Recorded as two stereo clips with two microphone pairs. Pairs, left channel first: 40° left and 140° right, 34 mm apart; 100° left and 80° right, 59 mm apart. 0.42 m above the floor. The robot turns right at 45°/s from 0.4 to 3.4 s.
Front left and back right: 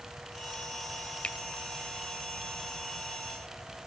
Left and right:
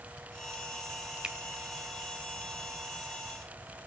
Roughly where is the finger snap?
Ahead.